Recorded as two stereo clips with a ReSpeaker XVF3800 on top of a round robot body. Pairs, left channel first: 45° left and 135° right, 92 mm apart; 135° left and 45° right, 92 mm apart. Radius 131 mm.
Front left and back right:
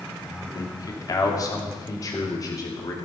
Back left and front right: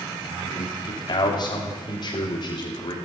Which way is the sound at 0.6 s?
95° left.